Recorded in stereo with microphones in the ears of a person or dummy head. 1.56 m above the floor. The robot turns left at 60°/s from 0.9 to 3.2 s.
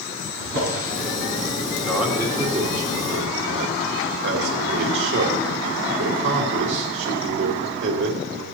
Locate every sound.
0.4 s a drawer: 50° right (ahead or behind), 6.5 m
1.8 s a man speaking: 15° left, 2.5 m; by 8.4 s 70° right, 2.5 m